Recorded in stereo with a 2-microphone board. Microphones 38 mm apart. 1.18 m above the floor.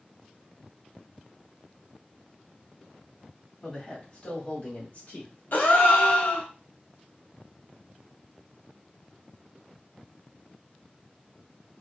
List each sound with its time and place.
3.6 s a man speaking: 20° left (ahead or behind), 1.9 m; by 5.4 s 55° left (ahead or behind), 0.9 m
5.5 s a gasp: 60° left (ahead or behind), 1.1 m